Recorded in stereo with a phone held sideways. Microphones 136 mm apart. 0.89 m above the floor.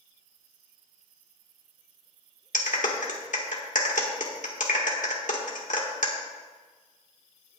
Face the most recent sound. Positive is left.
turn(degrees=70)  # may be behind; listen again after turning